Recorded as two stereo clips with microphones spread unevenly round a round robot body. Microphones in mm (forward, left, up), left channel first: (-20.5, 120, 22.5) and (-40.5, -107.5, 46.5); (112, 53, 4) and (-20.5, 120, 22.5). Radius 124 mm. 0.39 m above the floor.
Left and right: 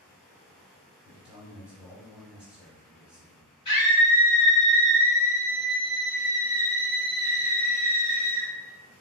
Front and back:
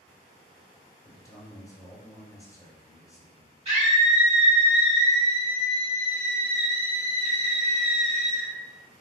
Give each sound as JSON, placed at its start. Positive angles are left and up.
{"t": 1.1, "sound": "a man speaking", "azimuth_deg": 0, "distance_m": 1.0}
{"t": 3.6, "sound": "a scream", "azimuth_deg": 130, "distance_m": 1.9}